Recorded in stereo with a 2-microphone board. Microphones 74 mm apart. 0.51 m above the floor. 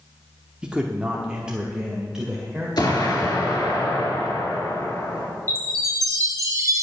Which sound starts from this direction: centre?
A man speaking, at 0.6 s.